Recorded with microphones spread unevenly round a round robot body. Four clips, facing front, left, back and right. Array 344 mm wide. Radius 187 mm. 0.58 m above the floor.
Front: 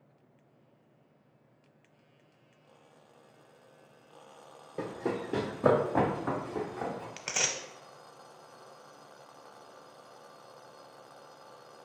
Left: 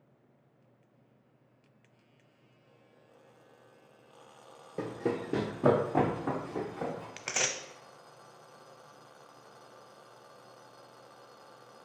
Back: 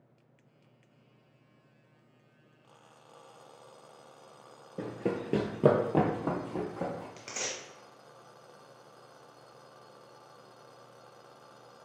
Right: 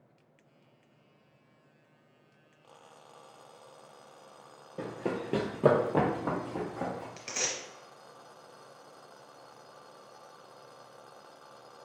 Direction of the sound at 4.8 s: 120° left.